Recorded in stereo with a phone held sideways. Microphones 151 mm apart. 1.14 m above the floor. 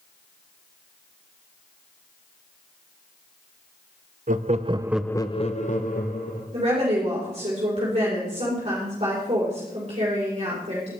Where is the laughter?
60° right (ahead or behind), 1.0 m; by 6.4 s 70° left (ahead or behind), 1.7 m.